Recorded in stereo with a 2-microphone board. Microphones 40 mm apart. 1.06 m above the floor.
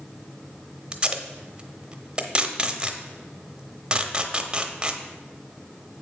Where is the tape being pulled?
20° right (ahead or behind), 0.7 m.